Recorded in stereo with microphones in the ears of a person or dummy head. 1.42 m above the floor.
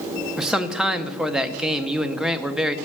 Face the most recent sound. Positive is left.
turn(degrees=0)  # may be behind; listen again after turning